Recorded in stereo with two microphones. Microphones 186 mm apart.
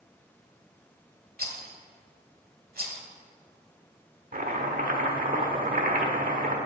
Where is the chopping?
50° right (ahead or behind), 1.2 m.